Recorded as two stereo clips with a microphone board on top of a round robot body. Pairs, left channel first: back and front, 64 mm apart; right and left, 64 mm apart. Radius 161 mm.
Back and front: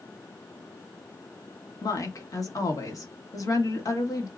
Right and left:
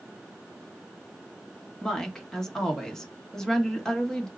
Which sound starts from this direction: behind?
A woman speaking, at 1.8 s.